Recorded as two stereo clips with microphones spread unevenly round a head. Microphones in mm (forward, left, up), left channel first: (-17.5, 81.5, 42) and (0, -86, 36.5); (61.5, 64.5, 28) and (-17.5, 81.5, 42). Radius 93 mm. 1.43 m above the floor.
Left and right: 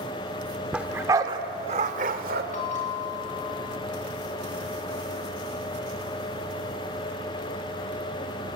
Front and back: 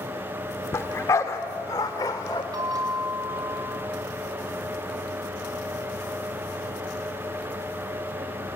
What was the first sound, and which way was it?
A dog barking, straight ahead.